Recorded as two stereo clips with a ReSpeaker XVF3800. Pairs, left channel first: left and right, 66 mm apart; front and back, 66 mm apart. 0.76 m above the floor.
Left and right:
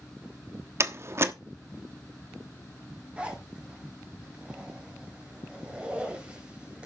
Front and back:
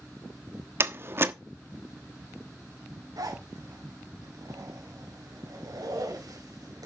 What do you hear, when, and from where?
0.8 s a door slam: 130° right, 1.1 m
3.2 s a zipper: 160° right, 4.5 m